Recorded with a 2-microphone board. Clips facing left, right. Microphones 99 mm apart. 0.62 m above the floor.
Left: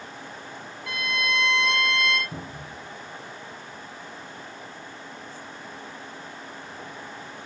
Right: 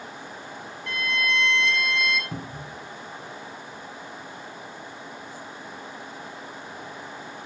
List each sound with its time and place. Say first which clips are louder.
0.9 s a violin: right 1 dB; 10° left (ahead or behind), 4.5 m
2.3 s a cupboard door: right 2 dB; 75° right (ahead or behind), 2 m